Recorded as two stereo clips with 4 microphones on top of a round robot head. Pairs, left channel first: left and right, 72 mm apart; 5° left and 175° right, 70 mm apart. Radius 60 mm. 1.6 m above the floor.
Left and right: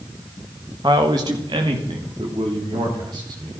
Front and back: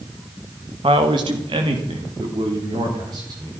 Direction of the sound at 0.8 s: 145° right.